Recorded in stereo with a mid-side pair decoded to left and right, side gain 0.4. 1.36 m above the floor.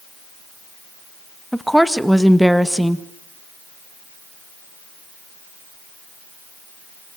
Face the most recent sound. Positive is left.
turn(degrees=-5)